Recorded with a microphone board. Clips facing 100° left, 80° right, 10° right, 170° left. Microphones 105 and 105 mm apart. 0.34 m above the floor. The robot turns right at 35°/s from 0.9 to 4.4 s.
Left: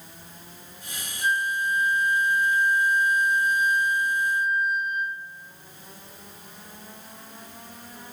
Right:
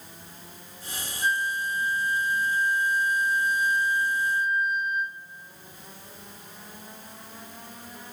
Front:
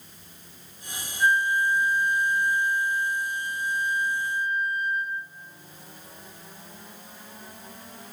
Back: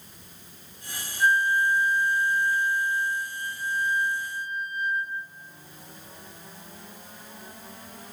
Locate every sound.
1.2 s a flute: 105° right, 5.5 m; by 5.2 s 5° left, 5.5 m